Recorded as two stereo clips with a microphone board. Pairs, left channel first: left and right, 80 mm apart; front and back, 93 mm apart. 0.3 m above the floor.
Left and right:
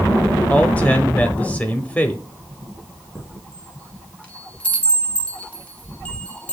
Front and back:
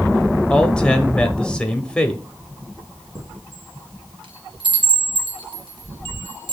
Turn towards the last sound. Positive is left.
turn(degrees=165)